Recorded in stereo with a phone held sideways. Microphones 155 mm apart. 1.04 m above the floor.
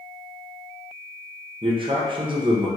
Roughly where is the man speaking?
Right.